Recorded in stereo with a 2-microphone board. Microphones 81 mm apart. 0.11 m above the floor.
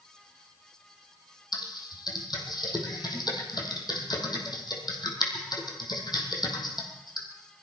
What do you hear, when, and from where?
1.5 s typing on a keyboard: 60° left (ahead or behind), 3 m